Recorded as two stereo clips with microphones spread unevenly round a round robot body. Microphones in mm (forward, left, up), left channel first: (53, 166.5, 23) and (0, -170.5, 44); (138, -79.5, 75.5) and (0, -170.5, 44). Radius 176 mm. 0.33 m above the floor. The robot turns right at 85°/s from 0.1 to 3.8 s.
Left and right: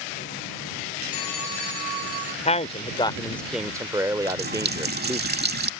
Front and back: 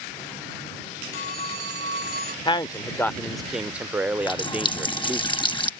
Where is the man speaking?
70° left; by 5.2 s 175° right.